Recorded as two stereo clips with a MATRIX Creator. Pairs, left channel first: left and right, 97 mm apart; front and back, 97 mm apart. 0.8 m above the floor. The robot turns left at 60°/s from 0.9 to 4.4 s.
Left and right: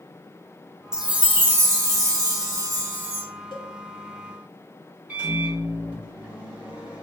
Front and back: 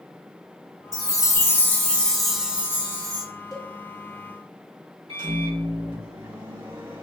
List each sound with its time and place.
0.9 s a chime: 10° right, 0.8 m; by 3.2 s 150° right, 0.8 m
3.5 s a cowbell: 55° left, 1.1 m; by 3.7 s 40° left, 1.1 m
5.1 s a microwave: 165° right, 1.9 m